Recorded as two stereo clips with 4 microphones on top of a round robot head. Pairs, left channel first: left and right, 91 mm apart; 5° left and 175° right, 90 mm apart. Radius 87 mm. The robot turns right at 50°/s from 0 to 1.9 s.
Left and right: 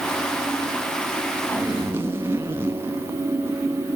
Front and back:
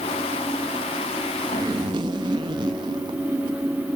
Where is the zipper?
175° right, 1.1 m; by 3.6 s 160° right, 1.1 m.